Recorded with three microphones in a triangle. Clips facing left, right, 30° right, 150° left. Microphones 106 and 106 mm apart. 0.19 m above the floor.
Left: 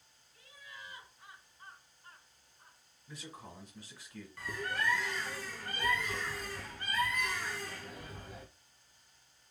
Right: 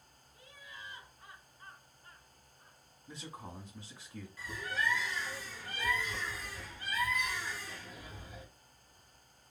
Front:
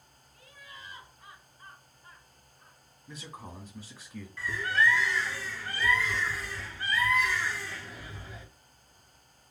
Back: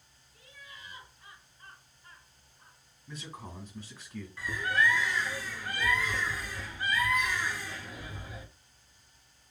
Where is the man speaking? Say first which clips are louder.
Right 2 dB, even; 95° right, 1.6 m.